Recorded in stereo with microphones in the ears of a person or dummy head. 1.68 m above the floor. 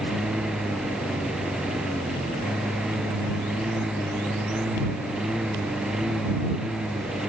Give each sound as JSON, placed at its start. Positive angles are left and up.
{"t": 0.0, "sound": "a lawn mower", "side_deg": -5}